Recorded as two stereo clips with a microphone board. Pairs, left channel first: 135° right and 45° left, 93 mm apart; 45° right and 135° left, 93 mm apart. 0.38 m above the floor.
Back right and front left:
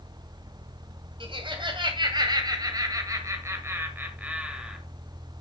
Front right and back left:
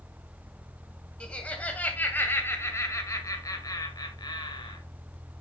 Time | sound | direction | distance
1.2 | laughter | 35° left | 2.5 m